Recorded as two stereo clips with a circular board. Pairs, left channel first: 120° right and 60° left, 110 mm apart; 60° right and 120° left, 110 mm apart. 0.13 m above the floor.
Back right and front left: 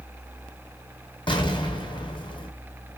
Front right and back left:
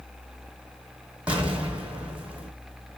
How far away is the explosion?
About 1.1 m.